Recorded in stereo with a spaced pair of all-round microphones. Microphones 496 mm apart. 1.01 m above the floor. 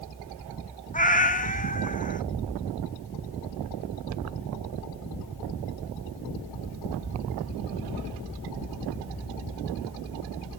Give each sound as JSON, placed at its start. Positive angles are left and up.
{"t": 0.9, "sound": "a cat meowing", "side_deg": 15, "distance_m": 0.7}